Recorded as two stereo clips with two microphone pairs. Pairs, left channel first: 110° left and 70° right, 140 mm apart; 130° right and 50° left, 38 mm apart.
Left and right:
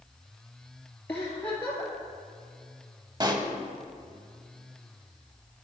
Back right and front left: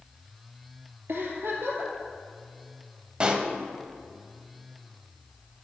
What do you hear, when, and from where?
1.1 s a giggle: 35° left, 2 m
3.2 s a pop: 10° right, 0.6 m